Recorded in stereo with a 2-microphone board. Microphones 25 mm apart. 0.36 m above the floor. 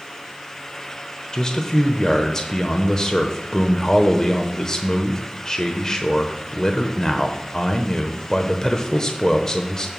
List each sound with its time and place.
1.3 s a man speaking: 25° left (ahead or behind), 0.9 m